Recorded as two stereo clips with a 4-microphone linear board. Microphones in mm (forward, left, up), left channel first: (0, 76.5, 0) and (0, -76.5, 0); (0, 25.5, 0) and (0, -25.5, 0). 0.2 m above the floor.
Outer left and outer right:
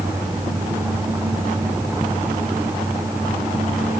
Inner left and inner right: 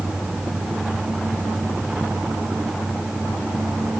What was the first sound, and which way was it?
Only background noise.